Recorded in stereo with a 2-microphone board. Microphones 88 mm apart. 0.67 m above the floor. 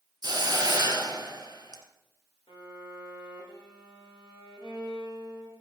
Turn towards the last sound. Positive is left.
turn(degrees=55)  # may be behind; listen again after turning